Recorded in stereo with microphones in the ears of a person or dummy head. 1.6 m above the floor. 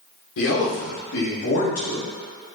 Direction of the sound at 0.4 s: 70° left (ahead or behind).